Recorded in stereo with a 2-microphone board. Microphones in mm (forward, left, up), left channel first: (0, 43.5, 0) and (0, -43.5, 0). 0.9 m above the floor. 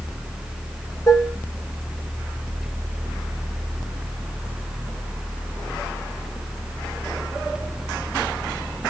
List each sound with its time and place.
1.1 s dishes clattering: 40° left (ahead or behind), 1.0 m